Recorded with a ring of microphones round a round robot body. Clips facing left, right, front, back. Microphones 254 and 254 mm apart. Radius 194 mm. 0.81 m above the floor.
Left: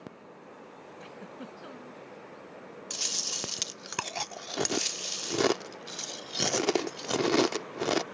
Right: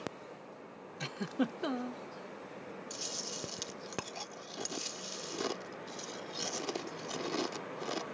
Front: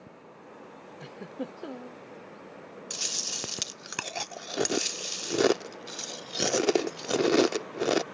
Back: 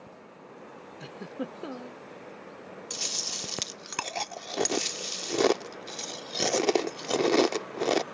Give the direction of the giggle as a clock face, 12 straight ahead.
3 o'clock.